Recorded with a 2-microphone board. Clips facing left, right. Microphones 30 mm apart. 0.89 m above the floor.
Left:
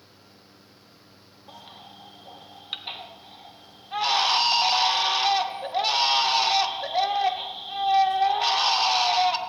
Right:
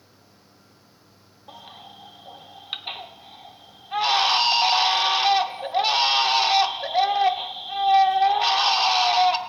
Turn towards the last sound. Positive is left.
turn(degrees=-5)  # may be behind; listen again after turning